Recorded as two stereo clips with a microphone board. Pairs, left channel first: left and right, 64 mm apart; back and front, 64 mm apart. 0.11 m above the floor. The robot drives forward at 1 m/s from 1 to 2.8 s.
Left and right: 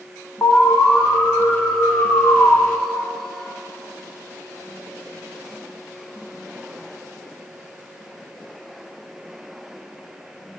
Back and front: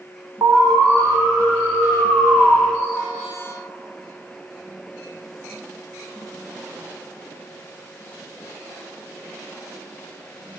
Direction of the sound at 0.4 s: 35° left.